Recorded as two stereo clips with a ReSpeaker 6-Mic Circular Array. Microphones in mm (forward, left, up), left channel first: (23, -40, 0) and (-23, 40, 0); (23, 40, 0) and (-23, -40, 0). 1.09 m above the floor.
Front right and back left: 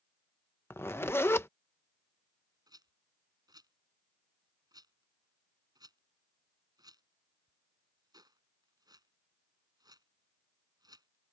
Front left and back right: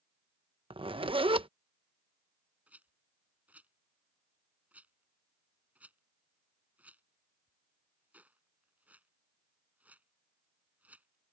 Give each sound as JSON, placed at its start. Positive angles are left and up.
{"t": 0.7, "sound": "a zipper", "azimuth_deg": -120}
{"t": 2.7, "sound": "a rattle", "azimuth_deg": 165}